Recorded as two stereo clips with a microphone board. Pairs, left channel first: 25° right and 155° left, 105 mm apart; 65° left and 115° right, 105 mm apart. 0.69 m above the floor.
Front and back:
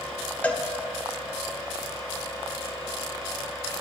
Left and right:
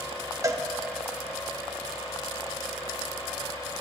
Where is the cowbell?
90° right, 0.6 m.